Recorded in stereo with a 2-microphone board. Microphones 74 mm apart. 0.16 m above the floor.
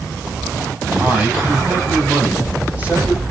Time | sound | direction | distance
1.0 | a man speaking | 20° right (ahead or behind) | 9.5 m